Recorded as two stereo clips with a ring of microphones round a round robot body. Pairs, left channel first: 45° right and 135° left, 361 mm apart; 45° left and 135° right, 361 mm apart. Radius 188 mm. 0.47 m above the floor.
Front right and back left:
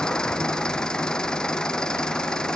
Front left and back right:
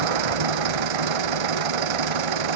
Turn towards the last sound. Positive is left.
turn(degrees=-135)